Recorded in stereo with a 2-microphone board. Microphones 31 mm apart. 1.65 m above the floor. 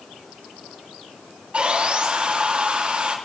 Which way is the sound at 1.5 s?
40° right (ahead or behind).